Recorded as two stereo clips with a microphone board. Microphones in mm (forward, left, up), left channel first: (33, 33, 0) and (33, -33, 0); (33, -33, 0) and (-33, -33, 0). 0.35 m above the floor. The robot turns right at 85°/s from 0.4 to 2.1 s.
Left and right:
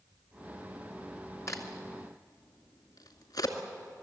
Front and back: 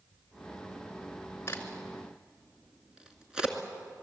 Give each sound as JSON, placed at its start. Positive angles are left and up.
{"t": 1.5, "sound": "a crack", "azimuth_deg": 50, "distance_m": 2.0}